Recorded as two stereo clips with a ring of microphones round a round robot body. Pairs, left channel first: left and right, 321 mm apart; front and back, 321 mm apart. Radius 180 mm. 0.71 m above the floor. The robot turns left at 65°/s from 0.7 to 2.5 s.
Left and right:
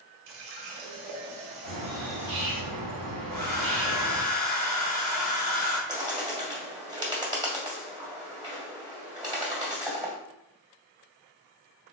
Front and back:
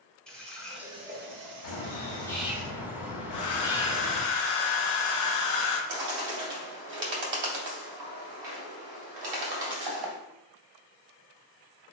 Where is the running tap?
90° right, 0.9 m; by 2.6 s 155° left, 0.9 m.